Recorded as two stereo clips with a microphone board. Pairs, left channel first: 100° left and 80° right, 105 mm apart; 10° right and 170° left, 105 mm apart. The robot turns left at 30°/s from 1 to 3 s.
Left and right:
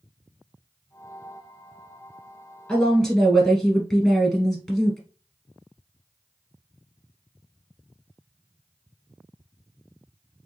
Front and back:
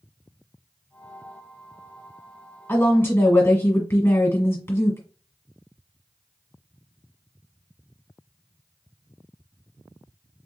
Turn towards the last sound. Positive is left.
turn(degrees=20)